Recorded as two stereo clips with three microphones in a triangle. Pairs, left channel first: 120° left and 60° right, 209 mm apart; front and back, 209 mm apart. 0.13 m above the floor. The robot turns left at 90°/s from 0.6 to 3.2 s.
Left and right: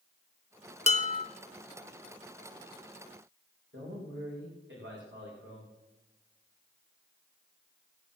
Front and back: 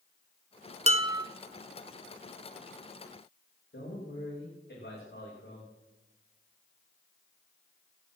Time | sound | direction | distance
0.9 | dishes clattering | 150° left | 0.9 m
3.7 | a man speaking | 35° right | 8 m